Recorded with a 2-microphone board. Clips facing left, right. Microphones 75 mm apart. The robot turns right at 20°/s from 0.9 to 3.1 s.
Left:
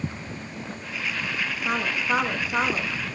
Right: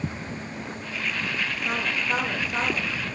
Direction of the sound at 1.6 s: 50° left (ahead or behind).